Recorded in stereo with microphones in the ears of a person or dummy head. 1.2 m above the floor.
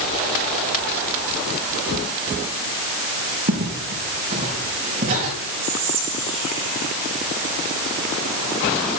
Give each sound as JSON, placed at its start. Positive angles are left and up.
{"t": 3.5, "sound": "footsteps", "side_deg": -45, "distance_m": 4.5}
{"t": 5.6, "sound": "whispering", "side_deg": -80, "distance_m": 3.5}